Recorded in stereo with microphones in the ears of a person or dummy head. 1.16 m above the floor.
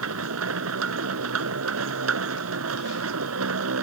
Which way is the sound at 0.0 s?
85° right.